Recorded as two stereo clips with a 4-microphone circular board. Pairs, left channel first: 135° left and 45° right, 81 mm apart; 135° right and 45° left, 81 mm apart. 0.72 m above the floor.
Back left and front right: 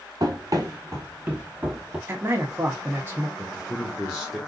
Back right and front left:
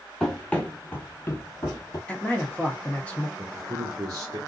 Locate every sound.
0.2 s running footsteps: 50° right, 1.1 m; by 2.0 s 125° right, 1.0 m
2.1 s a man speaking: 75° right, 1.0 m
3.4 s a man speaking: 80° left, 1.4 m